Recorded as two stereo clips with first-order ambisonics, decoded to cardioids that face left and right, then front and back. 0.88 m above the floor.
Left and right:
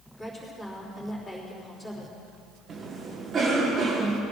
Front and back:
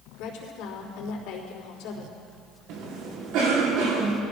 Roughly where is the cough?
Behind.